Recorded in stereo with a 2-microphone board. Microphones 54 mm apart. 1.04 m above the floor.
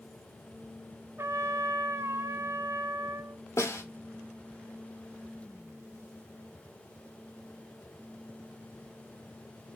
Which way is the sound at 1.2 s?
60° right (ahead or behind).